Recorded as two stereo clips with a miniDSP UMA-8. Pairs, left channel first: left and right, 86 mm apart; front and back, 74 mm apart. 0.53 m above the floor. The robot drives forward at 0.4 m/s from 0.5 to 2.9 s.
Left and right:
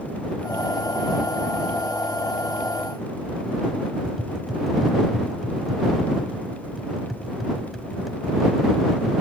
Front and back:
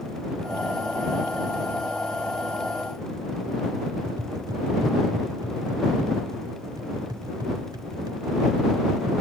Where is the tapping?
175° right, 0.9 m.